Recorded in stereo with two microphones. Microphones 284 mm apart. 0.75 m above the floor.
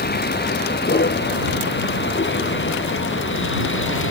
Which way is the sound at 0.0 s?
35° left (ahead or behind).